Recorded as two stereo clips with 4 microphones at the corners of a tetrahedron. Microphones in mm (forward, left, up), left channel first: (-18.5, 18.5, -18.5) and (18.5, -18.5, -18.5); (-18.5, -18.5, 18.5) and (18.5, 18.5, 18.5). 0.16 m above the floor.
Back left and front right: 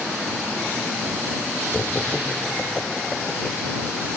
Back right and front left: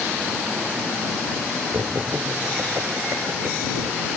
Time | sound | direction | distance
1.7 | laughter | 60° left | ?